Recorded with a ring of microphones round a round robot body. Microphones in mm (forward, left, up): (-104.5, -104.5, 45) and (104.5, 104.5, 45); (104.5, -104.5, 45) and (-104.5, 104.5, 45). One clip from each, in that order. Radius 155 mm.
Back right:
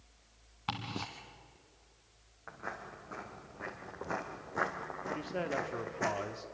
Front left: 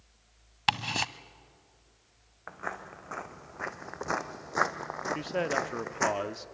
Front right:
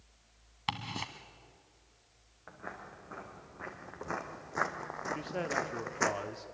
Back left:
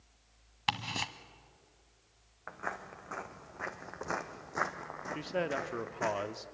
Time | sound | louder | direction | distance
0.7 | ticking | front left 11 dB, back left 3 dB | 65° left | 0.9 m
2.5 | footsteps | front left 5 dB, back left 5 dB | 95° left | 1.9 m
5.2 | a man speaking | front left 6 dB, back left 2 dB | 85° left | 0.9 m